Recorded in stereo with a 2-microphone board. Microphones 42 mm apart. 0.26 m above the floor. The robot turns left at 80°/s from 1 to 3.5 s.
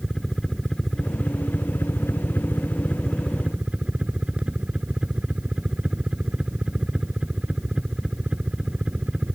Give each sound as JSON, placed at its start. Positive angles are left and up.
{"t": 0.0, "sound": "a helicopter", "azimuth_deg": 175}